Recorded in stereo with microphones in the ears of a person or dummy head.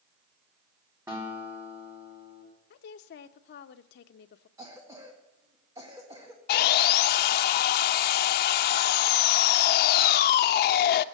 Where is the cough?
15° right (ahead or behind), 1.9 m.